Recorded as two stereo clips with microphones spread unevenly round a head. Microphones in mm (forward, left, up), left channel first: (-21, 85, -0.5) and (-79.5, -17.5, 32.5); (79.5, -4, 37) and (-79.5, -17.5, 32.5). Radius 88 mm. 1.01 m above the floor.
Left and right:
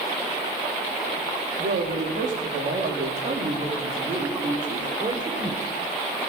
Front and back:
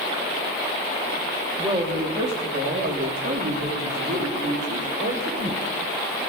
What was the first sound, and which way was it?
A woman speaking, 110° right.